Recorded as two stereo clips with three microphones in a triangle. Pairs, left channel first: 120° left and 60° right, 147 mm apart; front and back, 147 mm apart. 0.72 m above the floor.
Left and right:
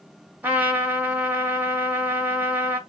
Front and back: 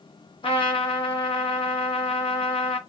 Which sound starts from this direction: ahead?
A trumpet, at 0.4 s.